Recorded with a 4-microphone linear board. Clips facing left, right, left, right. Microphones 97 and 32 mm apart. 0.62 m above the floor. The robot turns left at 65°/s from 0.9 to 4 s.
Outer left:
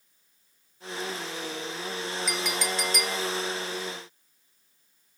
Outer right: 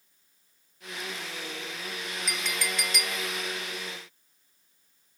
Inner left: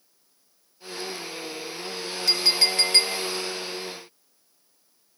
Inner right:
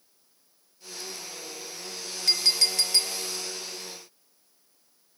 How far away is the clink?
About 1.1 m.